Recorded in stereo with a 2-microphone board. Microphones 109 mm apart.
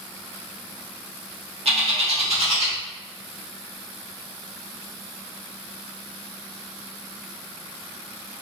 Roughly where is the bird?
Right.